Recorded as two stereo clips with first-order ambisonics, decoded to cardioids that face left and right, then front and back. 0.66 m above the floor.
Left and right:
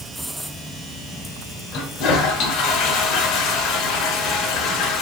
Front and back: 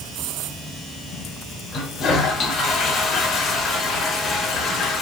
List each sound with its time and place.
1.7 s a toilet flushing: 55° left, 1.0 m